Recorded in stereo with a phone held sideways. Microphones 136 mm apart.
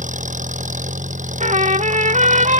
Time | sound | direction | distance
0.0 | an engine running | 70° right (ahead or behind) | ?
1.4 | a trumpet | 70° right (ahead or behind) | ?